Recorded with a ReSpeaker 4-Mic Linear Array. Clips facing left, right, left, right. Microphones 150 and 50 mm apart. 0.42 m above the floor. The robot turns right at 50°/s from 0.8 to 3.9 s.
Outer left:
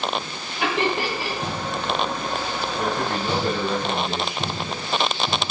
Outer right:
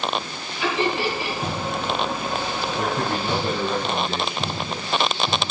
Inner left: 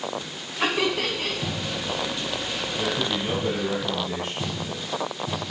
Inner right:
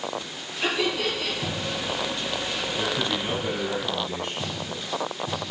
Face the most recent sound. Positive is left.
turn(degrees=0)